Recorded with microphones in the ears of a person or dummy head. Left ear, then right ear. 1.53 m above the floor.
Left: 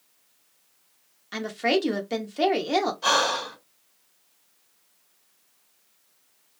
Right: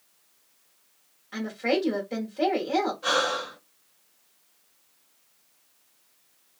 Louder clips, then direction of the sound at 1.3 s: Left 2 dB; 75° left (ahead or behind).